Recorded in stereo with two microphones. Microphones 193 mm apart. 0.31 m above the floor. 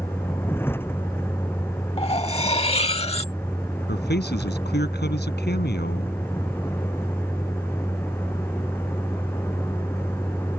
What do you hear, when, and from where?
0.0 s a vehicle: 10° left (ahead or behind)
2.0 s cutlery clinking: 30° left (ahead or behind)
3.9 s a man speaking: 60° left (ahead or behind)